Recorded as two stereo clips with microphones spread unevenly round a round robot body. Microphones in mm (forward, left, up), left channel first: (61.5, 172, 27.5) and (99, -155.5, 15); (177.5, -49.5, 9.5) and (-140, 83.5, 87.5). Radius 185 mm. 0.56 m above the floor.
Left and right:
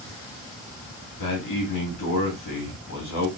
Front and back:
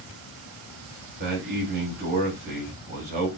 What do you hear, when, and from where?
1.2 s a man speaking: 90° left, 2.5 m